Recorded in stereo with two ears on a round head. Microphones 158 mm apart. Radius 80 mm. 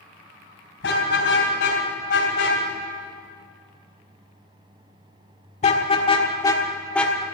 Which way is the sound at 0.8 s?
75° left (ahead or behind).